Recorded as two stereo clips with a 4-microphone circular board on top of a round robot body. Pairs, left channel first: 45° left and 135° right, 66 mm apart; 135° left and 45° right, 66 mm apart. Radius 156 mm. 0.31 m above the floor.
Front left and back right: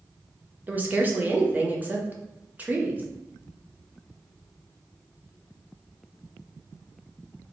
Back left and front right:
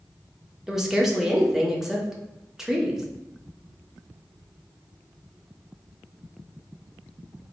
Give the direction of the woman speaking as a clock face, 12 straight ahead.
4 o'clock.